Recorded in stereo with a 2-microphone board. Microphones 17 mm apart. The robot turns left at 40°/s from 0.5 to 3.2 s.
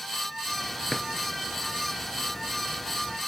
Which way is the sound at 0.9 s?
45° left (ahead or behind).